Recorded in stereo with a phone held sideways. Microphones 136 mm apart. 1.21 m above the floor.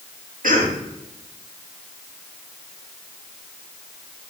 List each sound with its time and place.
0.4 s a cough: 75° right (ahead or behind), 2.5 m